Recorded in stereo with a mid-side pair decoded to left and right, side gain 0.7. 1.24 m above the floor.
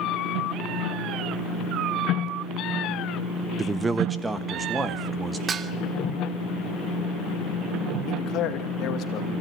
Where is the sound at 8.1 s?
50° left, 2.5 m.